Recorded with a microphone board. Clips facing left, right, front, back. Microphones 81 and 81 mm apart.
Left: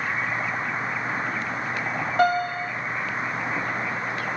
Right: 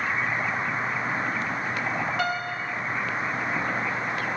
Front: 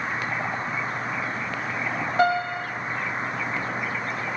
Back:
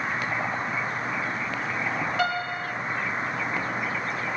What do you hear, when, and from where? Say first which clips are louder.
2.2 s a piano: left 7 dB, front 5 dB; 50° left, 1.8 m